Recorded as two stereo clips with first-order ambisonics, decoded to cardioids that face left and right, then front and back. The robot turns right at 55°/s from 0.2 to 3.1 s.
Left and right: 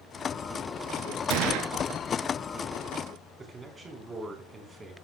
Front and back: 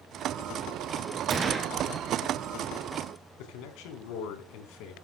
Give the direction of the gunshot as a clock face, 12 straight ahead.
4 o'clock.